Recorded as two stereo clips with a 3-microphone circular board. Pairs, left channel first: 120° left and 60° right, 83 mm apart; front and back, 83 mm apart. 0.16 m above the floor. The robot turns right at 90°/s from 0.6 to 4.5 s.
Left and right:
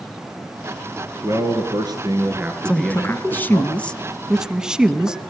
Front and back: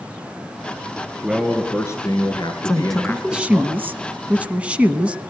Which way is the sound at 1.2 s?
110° right.